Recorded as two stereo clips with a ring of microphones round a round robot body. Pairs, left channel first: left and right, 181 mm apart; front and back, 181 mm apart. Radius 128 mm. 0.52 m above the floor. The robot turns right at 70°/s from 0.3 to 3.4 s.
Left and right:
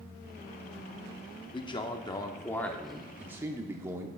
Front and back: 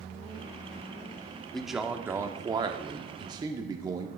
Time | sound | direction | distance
1.5 | a man speaking | 80° left | 0.7 m